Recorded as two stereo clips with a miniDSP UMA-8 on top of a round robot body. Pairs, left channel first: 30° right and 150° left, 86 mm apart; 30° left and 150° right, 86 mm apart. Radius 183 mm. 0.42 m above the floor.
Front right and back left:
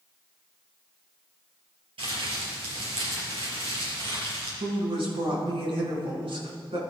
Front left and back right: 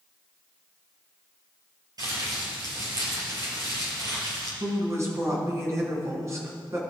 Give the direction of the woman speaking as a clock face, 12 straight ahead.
7 o'clock.